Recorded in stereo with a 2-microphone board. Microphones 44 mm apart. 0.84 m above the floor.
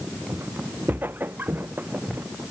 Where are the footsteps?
60° right (ahead or behind); by 2.2 s 50° right (ahead or behind).